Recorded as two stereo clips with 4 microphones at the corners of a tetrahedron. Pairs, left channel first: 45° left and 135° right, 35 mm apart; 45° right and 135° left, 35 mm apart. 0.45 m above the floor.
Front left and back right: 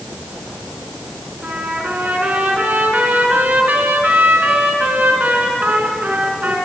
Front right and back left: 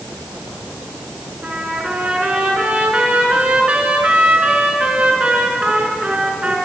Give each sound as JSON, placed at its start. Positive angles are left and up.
{"t": 1.4, "sound": "a trumpet", "azimuth_deg": -175, "distance_m": 3.5}